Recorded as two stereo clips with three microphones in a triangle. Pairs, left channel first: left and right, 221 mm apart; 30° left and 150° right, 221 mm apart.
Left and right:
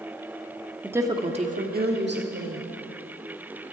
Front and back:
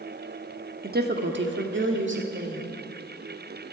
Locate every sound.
0.8 s a woman speaking: 170° right, 1.1 m; by 2.6 s 115° right, 2 m